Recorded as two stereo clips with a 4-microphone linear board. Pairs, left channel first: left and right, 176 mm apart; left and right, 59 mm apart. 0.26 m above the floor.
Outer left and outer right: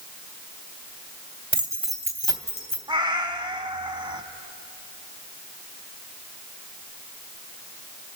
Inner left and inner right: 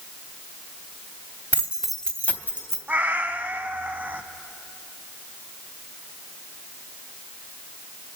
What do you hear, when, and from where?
1.5 s keys jangling: 30° right (ahead or behind), 0.9 m; by 2.8 s 40° left (ahead or behind), 1.5 m
2.9 s a cat meowing: 25° right (ahead or behind), 0.6 m